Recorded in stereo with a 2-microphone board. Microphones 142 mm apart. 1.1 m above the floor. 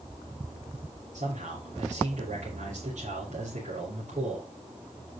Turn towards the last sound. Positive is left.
turn(degrees=-70)  # may be behind; listen again after turning